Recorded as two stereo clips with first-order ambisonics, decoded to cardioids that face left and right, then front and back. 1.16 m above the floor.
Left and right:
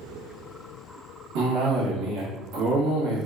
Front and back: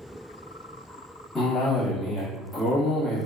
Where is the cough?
70° right, 1.1 m.